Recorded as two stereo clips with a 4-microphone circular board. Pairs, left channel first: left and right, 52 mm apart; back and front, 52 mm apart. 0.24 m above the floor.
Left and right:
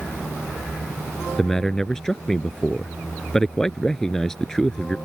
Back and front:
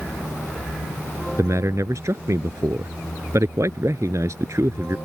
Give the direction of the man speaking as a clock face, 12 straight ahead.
12 o'clock.